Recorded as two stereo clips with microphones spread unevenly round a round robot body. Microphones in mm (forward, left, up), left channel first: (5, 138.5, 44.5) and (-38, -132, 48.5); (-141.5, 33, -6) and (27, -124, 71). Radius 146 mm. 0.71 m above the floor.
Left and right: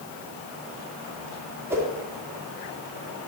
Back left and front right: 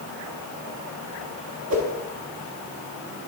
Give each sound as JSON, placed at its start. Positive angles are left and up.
{"t": 1.7, "sound": "a whoosh", "azimuth_deg": -20, "distance_m": 1.1}